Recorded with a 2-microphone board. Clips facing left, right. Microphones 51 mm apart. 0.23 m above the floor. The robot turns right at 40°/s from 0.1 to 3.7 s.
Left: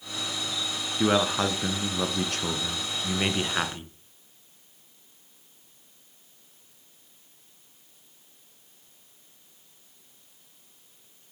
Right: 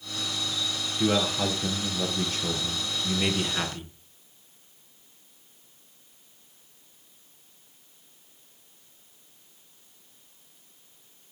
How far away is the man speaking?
About 3 m.